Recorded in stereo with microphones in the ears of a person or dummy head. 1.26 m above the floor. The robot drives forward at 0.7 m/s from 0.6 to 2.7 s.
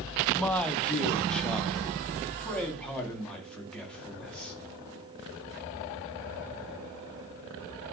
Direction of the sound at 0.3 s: Centre (ahead or behind).